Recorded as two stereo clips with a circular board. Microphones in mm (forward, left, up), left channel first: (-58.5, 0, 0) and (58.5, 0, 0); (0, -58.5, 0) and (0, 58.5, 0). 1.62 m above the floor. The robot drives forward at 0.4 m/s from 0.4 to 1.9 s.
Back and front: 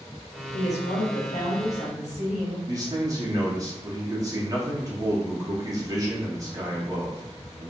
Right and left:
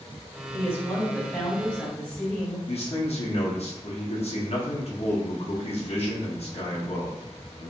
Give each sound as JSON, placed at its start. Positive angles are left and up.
{"t": 0.5, "sound": "a woman speaking", "azimuth_deg": -160, "distance_m": 0.8}
{"t": 2.7, "sound": "a man speaking", "azimuth_deg": -60, "distance_m": 0.8}